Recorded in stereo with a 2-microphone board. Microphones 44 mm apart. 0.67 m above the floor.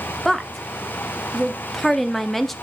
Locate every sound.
0.2 s a woman speaking: centre (ahead or behind), 0.8 m